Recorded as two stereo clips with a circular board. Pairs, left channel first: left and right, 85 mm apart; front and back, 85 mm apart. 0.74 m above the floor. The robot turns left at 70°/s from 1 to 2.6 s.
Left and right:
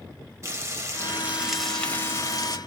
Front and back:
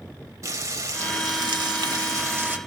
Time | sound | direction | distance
0.4 | frying | 140° right | 0.9 m